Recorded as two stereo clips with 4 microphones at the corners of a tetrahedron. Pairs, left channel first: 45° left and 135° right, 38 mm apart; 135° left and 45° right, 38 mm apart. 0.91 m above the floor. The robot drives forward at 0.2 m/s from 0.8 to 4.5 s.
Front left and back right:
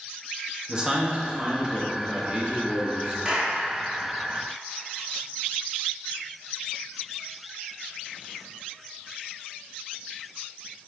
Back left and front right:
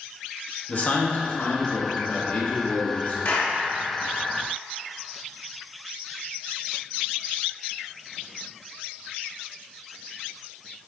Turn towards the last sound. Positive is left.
turn(degrees=165)